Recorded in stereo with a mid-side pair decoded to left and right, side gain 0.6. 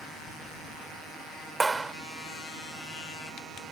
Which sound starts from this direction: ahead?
A clap, at 1.6 s.